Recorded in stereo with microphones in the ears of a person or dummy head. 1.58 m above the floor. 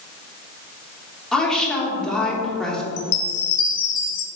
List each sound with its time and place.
1.3 s a woman speaking: 5° left (ahead or behind), 1.8 m
3.0 s a chime: 60° left (ahead or behind), 0.6 m